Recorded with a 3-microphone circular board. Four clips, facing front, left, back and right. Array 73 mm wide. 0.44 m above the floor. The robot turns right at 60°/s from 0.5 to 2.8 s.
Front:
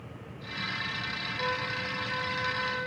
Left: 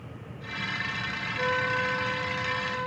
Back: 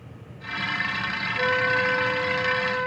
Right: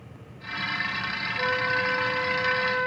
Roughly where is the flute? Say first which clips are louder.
Right 1 dB, back 11 dB; behind.